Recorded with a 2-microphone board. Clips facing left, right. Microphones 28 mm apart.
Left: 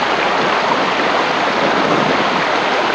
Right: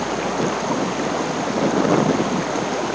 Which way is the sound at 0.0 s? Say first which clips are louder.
Left 7 dB; 50° left (ahead or behind).